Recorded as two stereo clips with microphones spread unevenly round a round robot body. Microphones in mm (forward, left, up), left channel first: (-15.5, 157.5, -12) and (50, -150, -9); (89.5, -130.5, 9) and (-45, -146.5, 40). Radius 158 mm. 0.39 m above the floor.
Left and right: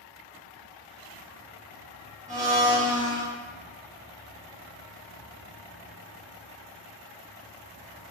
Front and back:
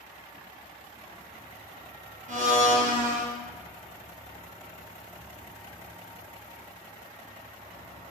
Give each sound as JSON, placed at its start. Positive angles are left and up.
{"t": 2.3, "sound": "a blender", "azimuth_deg": -145, "distance_m": 0.6}